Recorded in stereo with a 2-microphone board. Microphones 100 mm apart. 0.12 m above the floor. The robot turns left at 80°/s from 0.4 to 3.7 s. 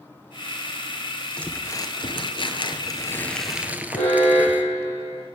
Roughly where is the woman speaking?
No woman speaking in this recording.